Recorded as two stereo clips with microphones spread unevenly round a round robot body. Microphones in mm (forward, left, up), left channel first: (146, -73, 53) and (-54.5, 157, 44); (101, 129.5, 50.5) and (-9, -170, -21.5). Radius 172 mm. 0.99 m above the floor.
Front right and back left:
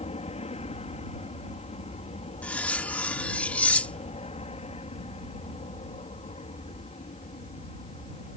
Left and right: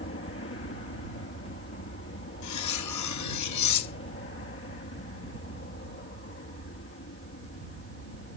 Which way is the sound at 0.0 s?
15° left.